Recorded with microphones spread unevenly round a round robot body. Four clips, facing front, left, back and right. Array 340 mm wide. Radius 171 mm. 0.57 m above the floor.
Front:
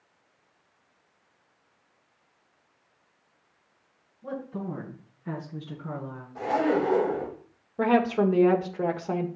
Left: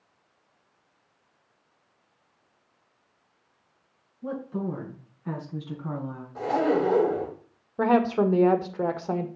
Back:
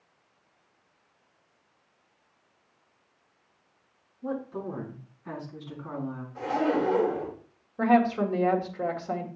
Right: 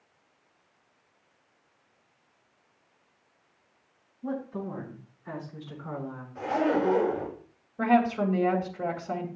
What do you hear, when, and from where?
4.2 s a woman speaking: 110° left, 7.5 m; by 6.2 s 95° left, 5.5 m
6.3 s a zipper: 85° left, 6 m
7.8 s a woman speaking: 65° left, 1.7 m